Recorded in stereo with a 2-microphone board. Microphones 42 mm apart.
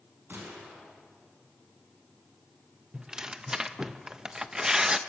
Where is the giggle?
No giggle in this recording.